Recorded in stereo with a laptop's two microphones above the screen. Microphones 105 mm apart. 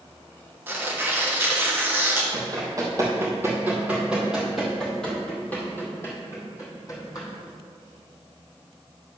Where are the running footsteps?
40° right (ahead or behind), 2 m; by 7.3 s 35° left (ahead or behind), 2.5 m.